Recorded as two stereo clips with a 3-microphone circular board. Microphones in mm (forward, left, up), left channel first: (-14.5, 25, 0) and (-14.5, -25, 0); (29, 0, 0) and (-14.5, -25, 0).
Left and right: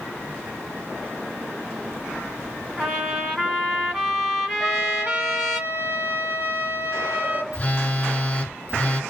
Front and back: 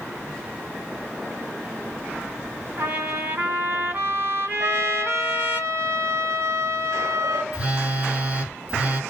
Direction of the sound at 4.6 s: 140° right.